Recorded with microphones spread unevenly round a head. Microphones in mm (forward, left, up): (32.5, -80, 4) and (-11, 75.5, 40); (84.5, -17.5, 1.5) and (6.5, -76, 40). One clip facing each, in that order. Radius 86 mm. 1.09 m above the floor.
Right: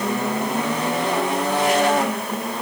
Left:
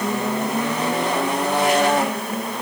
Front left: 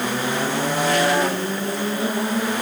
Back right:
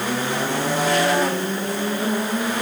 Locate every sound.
Only background noise.